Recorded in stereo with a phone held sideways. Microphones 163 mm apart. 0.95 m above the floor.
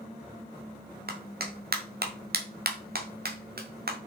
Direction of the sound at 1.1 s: 70° right (ahead or behind).